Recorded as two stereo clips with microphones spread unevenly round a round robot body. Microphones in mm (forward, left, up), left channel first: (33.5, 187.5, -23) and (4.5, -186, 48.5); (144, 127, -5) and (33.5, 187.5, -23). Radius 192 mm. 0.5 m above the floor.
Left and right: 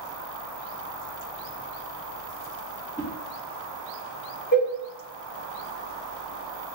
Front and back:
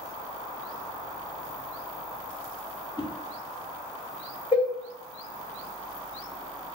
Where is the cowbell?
20° left, 1.9 m.